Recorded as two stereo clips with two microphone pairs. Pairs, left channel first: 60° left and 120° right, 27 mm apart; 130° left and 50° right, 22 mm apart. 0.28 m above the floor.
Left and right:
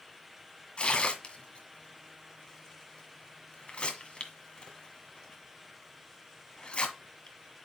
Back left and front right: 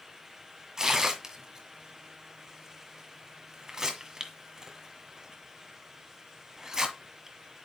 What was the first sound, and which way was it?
Tearing paper, 15° left.